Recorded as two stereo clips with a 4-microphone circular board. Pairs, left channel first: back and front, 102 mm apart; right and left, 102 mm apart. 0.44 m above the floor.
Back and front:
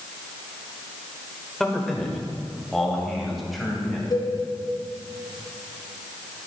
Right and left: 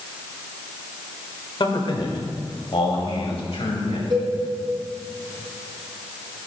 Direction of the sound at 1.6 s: 95° right.